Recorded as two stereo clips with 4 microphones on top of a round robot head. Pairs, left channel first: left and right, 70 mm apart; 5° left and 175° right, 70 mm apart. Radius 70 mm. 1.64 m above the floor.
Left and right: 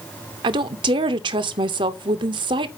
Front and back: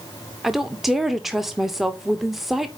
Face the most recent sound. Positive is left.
turn(degrees=-90)